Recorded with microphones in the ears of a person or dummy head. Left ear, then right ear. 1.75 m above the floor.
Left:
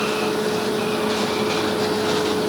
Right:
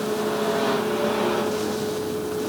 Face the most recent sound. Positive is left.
No sound to turn to.